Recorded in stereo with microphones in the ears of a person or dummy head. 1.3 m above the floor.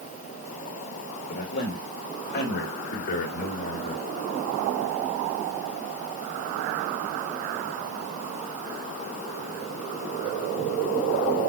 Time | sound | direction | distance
1.3 | a man speaking | 60° left (ahead or behind) | 5.5 m